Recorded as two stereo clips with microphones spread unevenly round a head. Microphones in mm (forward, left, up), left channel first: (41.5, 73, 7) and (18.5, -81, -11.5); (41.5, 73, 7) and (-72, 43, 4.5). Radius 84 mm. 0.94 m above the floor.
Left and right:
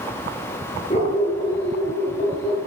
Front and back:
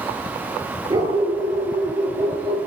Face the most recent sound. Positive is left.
turn(degrees=140)